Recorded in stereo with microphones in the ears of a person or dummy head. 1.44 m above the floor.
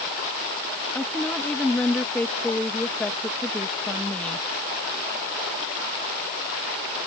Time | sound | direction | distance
0.9 | a woman speaking | centre (ahead or behind) | ?